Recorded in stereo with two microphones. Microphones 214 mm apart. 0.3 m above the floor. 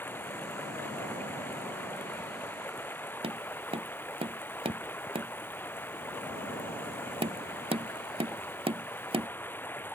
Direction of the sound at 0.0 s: 10° left (ahead or behind).